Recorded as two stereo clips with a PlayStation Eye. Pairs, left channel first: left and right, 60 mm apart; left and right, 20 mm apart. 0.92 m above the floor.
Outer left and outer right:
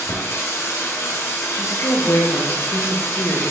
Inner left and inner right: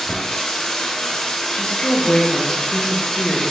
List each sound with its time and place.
0.0 s running water: 50° left (ahead or behind), 1.2 m
1.5 s a woman speaking: 55° left (ahead or behind), 0.8 m